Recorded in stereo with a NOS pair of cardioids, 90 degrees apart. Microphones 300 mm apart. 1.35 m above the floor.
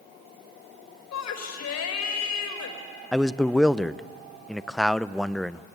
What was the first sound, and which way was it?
A shout, 60° left.